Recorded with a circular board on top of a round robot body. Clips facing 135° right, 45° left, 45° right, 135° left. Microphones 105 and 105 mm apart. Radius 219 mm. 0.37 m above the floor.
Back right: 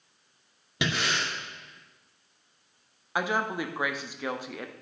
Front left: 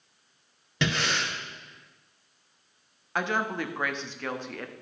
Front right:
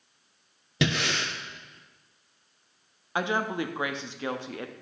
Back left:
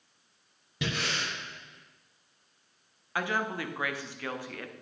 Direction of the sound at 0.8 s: 55° right.